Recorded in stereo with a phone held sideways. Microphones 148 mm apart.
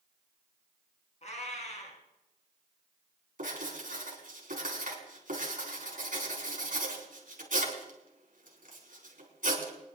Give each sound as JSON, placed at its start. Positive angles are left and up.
{"t": 1.2, "sound": "a cat meowing", "side_deg": 50, "distance_m": 3.5}
{"t": 3.4, "sound": "writing", "side_deg": -65, "distance_m": 4.0}